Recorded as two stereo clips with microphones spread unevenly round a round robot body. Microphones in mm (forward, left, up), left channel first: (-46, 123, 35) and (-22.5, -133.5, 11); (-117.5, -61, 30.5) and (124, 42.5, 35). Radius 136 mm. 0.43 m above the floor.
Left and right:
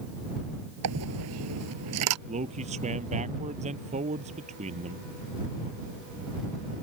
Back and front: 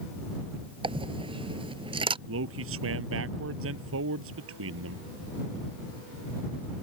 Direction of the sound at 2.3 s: 20° right.